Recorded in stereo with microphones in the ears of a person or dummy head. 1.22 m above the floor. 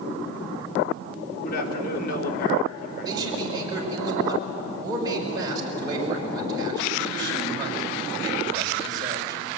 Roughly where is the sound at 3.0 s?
Right.